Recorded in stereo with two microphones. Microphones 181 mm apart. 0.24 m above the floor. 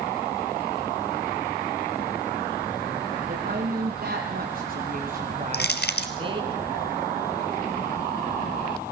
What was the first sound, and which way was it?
A woman speaking, 55° right (ahead or behind).